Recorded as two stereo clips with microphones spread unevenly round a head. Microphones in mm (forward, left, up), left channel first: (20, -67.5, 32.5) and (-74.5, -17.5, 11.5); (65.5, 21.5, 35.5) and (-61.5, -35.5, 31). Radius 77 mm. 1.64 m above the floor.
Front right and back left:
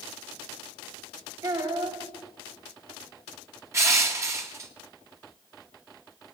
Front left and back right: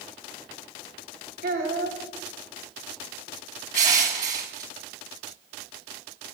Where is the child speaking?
155° right, 3.5 m.